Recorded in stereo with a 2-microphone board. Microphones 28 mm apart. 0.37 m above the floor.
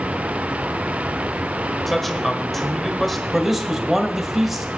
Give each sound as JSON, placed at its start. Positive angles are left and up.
{"t": 1.9, "sound": "a man speaking", "side_deg": 10, "distance_m": 1.4}
{"t": 3.3, "sound": "a man speaking", "side_deg": -10, "distance_m": 1.6}